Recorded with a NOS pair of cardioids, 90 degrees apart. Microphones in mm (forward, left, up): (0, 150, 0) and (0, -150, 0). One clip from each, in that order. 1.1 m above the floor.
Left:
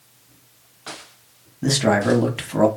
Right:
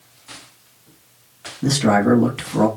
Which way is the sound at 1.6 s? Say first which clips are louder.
Right 1 dB; 10° left.